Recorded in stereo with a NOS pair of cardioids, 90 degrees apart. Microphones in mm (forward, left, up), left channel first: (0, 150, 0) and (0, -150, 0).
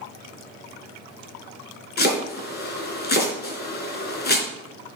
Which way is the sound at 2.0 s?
35° left.